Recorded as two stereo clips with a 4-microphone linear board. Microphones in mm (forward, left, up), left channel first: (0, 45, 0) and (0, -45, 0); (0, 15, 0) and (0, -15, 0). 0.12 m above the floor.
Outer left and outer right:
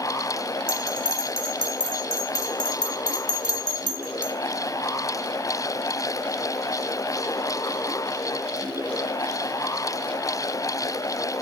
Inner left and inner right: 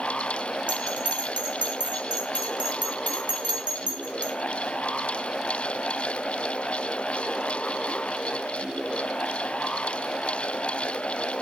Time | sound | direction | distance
0.7 | a bell | 45° right (ahead or behind) | 0.7 m